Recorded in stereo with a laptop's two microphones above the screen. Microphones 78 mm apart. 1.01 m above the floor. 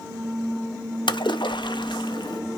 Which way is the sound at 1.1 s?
80° left.